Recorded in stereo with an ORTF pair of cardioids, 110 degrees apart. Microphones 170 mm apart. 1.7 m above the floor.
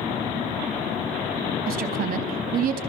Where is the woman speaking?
60° right, 4 m.